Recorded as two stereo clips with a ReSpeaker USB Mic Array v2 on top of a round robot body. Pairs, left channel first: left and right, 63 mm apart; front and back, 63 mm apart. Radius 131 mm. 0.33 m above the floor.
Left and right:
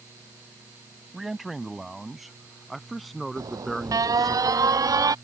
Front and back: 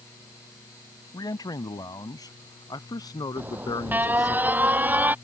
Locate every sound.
1.1 s a man speaking: 5° right; by 4.4 s straight ahead
3.4 s an alarm: 120° right